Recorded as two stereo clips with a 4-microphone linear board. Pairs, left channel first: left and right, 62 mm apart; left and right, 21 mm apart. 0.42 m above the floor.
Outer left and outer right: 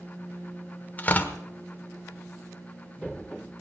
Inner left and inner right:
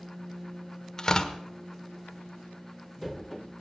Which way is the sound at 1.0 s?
30° left (ahead or behind).